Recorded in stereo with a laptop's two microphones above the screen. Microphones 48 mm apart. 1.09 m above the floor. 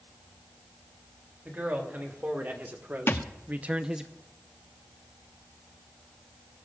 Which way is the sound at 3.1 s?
55° left (ahead or behind).